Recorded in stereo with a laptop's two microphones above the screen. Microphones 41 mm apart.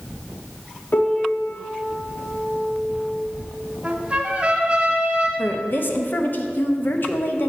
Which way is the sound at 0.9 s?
50° left (ahead or behind).